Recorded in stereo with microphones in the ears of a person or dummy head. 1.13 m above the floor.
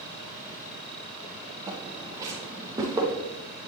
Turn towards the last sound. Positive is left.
turn(degrees=-25)  # may be behind; listen again after turning